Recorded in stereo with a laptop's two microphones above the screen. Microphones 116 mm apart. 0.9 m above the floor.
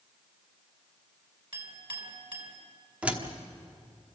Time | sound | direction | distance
1.5 | a clink | 45° right (ahead or behind) | 5 m
3.0 | a door slam | 10° right (ahead or behind) | 1.2 m